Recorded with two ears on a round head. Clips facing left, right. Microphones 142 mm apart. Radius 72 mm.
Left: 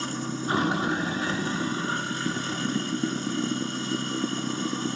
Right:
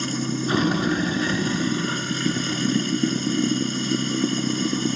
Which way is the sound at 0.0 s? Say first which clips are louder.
Right 5 dB; 20° right (ahead or behind).